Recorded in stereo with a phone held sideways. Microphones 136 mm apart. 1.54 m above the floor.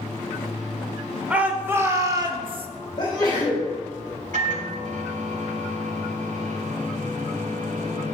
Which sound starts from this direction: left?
A sneeze, at 3.0 s.